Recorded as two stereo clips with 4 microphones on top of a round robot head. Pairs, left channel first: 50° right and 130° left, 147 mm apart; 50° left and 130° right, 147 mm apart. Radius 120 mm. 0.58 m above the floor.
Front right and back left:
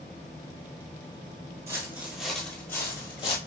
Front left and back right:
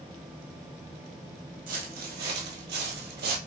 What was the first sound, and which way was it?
Footsteps, 165° right.